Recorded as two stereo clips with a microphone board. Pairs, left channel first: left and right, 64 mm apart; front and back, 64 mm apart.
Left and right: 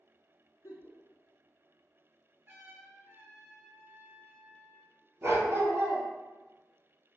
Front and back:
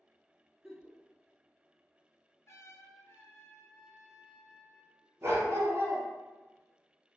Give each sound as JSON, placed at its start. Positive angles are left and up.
{"t": 0.6, "sound": "a giggle", "azimuth_deg": 95, "distance_m": 0.8}
{"t": 2.5, "sound": "a trumpet", "azimuth_deg": -40, "distance_m": 0.6}
{"t": 5.2, "sound": "a dog barking", "azimuth_deg": -135, "distance_m": 0.8}